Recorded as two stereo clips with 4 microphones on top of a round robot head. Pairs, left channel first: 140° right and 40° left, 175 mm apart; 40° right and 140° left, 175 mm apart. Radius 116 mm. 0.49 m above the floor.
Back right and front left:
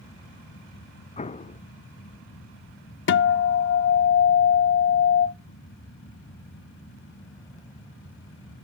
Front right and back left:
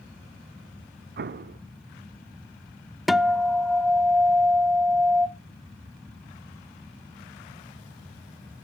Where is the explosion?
165° left, 0.6 m.